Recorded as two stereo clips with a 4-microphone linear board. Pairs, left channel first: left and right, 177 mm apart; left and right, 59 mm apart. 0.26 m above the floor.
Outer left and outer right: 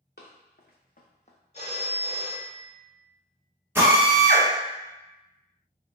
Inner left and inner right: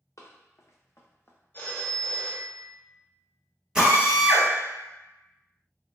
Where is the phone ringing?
40° left (ahead or behind), 0.7 m.